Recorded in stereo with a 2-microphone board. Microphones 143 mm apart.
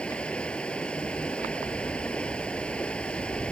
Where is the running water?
5° left (ahead or behind).